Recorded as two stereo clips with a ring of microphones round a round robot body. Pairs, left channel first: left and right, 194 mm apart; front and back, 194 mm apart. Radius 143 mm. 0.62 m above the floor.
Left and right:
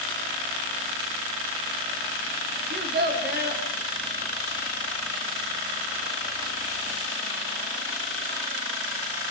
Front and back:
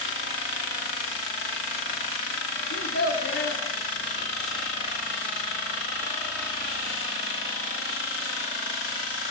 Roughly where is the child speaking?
Ahead right.